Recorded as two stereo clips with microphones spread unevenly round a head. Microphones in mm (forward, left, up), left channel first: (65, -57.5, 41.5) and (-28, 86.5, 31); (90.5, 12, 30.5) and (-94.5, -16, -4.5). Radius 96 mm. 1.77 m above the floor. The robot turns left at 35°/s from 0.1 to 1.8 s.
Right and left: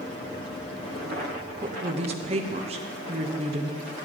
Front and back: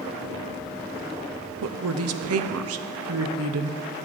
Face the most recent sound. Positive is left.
turn(degrees=180)